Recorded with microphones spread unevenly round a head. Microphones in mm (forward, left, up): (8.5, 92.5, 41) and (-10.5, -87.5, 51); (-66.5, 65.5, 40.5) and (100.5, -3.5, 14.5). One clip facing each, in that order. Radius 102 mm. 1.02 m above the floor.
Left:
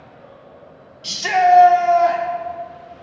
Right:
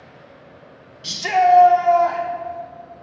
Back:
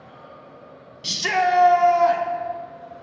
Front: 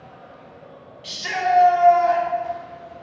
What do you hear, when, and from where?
1.0 s a shout: 170° right, 0.5 m; by 2.2 s 145° left, 1.0 m